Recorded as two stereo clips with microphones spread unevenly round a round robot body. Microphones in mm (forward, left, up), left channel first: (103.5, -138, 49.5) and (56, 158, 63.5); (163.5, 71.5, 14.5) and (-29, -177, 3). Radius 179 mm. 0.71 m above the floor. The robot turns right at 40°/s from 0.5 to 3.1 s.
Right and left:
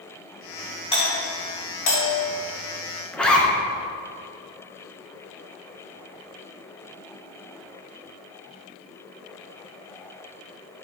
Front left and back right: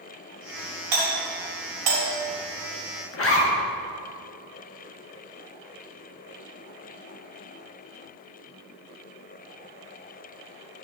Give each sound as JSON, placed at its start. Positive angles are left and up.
{"t": 0.9, "sound": "a doorbell", "azimuth_deg": -155, "distance_m": 4.0}
{"t": 3.1, "sound": "a zipper", "azimuth_deg": 5, "distance_m": 2.5}